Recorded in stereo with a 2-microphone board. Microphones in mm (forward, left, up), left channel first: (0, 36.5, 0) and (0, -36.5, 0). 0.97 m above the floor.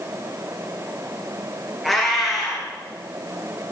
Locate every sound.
1.8 s a cat meowing: centre (ahead or behind), 4.5 m